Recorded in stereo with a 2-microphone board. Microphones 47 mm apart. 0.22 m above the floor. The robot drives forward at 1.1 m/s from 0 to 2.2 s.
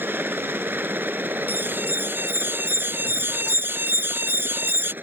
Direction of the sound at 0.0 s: 45° right (ahead or behind).